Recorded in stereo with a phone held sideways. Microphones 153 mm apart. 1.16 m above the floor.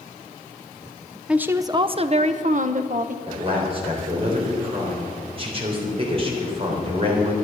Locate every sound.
1.3 s a woman speaking: 5° right (ahead or behind), 0.5 m; by 3.2 s 60° right (ahead or behind), 1.0 m
3.3 s a man speaking: 40° right (ahead or behind), 3.5 m